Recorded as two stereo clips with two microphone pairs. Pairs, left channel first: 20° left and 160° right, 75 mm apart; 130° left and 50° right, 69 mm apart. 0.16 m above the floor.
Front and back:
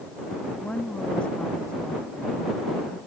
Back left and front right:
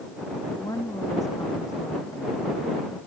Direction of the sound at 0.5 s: 100° left.